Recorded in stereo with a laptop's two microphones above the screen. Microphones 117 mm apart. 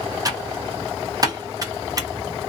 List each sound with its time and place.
0.2 s typing on a keyboard: 30° right (ahead or behind), 0.6 m